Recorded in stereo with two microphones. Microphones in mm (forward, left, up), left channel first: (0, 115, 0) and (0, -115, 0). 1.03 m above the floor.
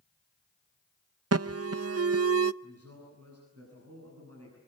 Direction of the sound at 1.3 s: 80° right.